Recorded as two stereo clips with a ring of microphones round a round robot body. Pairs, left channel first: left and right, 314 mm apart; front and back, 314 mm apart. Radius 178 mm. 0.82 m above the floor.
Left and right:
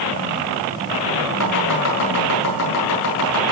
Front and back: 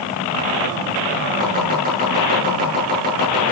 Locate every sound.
1.4 s chopping: 115° left, 8 m